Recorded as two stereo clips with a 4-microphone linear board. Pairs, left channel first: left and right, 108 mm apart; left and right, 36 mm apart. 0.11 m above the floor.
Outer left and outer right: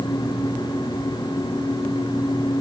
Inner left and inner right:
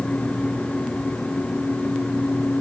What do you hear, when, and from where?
Only background noise.